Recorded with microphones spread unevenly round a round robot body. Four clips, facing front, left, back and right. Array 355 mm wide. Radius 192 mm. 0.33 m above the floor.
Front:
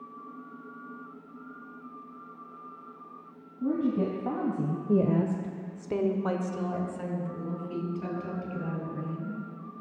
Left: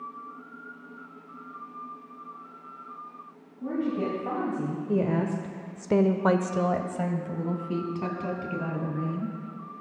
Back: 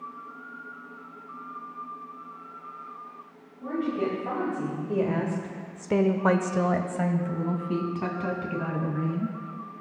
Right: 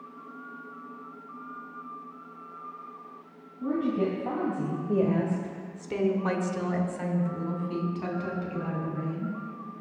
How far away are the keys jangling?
I don't hear keys jangling.